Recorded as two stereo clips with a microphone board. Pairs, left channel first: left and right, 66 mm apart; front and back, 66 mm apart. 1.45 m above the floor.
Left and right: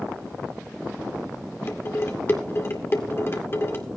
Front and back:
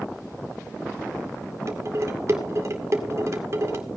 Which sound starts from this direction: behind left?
Dishes clattering, at 1.7 s.